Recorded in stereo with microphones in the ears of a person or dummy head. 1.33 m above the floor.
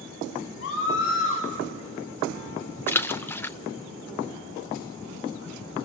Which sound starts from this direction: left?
A scream, at 0.6 s.